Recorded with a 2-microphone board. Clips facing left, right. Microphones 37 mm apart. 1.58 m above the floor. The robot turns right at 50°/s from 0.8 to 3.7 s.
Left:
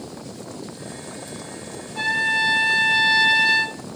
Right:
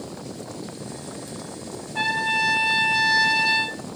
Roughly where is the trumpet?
Right.